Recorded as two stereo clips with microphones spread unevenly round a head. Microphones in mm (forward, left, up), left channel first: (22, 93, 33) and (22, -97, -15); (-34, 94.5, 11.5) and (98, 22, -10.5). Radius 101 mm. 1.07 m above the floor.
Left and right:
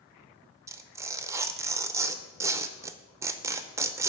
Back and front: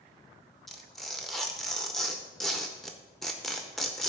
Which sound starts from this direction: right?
Tearing paper, at 0.7 s.